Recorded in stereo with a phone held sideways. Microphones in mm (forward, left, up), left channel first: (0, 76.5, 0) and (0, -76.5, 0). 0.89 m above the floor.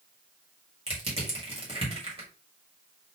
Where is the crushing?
40° right (ahead or behind), 1.6 m.